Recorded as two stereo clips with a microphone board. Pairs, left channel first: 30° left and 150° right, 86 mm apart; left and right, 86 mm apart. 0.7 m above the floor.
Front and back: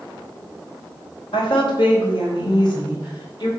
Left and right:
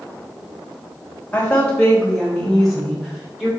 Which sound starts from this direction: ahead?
A woman speaking, at 1.3 s.